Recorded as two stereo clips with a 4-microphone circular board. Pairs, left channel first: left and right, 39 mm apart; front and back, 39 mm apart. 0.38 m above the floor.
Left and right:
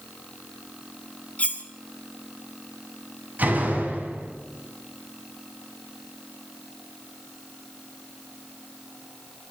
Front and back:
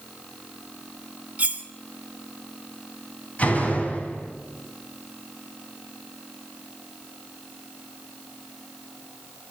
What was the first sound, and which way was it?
Cutlery clinking, 135° left.